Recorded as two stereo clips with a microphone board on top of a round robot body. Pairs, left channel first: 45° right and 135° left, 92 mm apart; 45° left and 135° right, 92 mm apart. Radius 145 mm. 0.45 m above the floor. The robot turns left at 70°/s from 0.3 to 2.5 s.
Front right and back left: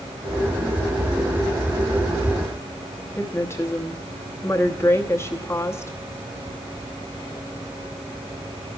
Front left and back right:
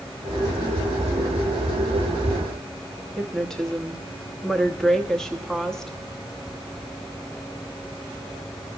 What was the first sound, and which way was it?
A woman speaking, 35° right.